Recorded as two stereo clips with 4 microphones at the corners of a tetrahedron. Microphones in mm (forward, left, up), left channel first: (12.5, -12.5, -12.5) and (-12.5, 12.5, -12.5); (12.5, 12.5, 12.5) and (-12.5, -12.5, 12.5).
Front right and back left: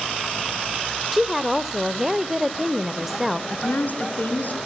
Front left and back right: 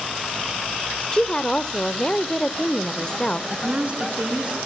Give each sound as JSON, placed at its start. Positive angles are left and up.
{"t": 1.1, "sound": "a woman speaking", "azimuth_deg": 60, "distance_m": 0.9}
{"t": 3.5, "sound": "a woman speaking", "azimuth_deg": -85, "distance_m": 4.5}